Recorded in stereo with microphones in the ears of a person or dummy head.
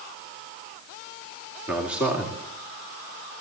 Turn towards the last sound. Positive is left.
turn(degrees=-5)  # may be behind; listen again after turning